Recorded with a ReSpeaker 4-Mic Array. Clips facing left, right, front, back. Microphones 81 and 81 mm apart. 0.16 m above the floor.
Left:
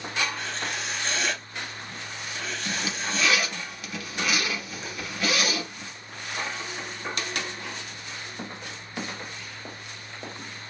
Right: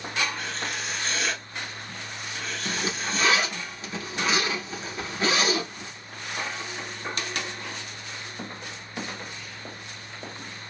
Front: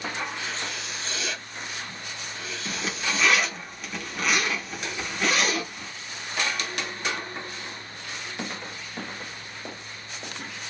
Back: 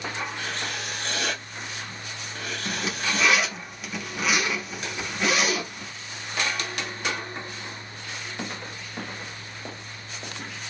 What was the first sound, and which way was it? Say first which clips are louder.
Writing: even, back 1 dB; straight behind.